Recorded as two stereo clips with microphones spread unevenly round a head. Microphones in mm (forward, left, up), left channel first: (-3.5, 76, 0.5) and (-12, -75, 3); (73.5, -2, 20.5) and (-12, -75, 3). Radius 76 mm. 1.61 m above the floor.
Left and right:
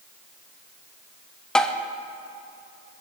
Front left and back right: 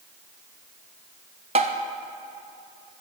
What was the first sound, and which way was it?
Tapping, 170° left.